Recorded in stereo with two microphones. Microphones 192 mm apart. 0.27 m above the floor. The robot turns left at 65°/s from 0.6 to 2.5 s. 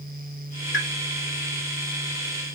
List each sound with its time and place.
0.7 s a pop: 70° left (ahead or behind), 0.5 m; by 0.9 s 80° left, 0.5 m